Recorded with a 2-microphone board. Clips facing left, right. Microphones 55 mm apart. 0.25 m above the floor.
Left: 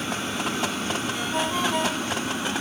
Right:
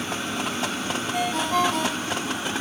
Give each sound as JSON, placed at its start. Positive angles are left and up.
{"t": 1.1, "sound": "a ringtone", "side_deg": -85, "distance_m": 8.0}